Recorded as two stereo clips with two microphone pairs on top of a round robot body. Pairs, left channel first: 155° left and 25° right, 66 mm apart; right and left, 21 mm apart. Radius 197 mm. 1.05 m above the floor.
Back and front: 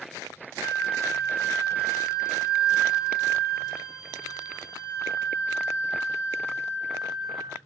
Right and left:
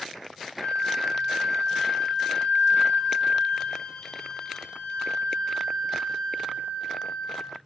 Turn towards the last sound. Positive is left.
turn(degrees=-105)